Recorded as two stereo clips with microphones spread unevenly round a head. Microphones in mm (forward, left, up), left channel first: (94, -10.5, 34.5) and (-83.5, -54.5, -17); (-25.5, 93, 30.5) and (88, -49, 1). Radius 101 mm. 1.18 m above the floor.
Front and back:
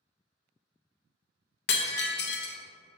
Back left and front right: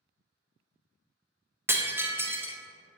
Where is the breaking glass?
30° left, 0.7 m.